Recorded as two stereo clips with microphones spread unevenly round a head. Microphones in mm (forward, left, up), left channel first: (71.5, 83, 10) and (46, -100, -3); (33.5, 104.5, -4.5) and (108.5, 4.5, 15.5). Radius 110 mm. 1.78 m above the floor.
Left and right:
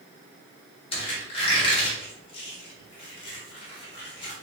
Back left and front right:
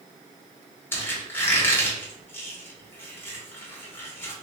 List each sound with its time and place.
0.9 s a squeak: 55° left, 1.5 m